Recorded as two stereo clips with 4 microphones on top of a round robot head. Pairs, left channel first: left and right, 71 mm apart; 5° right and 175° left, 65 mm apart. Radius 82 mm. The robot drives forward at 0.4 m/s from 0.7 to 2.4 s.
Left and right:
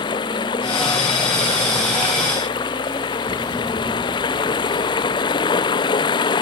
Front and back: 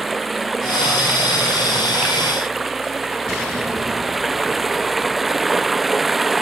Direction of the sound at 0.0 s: 90° left.